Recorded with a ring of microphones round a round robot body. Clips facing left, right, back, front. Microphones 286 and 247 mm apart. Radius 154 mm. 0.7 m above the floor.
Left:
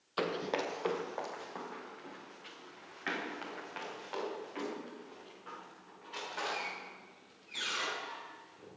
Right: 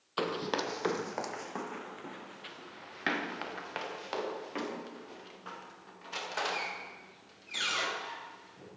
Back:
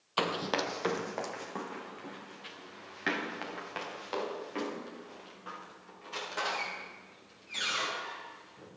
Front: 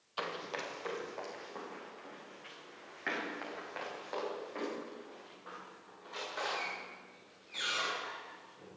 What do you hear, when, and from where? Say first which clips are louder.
0.2 s running footsteps: right 1 dB, back 9 dB; straight behind, 1.0 m; by 8.7 s 120° right, 10.5 m